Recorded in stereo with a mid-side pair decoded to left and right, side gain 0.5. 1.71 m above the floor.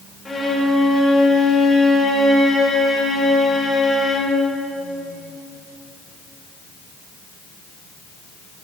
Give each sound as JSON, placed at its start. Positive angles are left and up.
{"t": 0.2, "sound": "a violin", "azimuth_deg": 30, "distance_m": 3.0}